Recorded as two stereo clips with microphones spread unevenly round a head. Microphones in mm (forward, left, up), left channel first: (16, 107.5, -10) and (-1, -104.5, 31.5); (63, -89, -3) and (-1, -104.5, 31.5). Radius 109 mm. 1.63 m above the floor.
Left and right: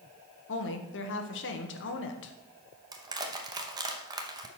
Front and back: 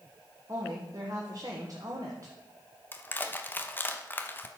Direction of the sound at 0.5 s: 125° left.